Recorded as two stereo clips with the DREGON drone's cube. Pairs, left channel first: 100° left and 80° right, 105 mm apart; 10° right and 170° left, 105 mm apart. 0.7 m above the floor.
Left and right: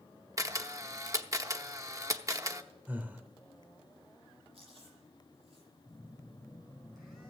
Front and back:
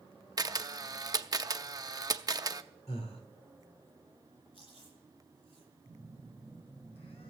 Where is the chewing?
50° right, 9.5 m.